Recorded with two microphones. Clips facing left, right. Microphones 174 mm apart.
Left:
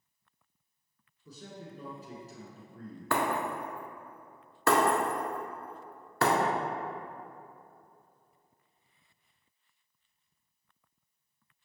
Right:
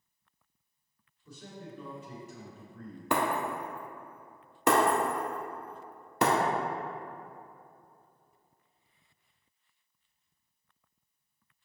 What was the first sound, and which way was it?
A man speaking, 40° left (ahead or behind).